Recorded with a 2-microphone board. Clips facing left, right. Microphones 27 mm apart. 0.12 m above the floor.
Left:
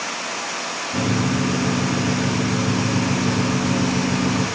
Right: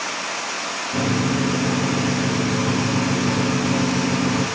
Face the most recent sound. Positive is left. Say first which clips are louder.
# even
turn(degrees=-80)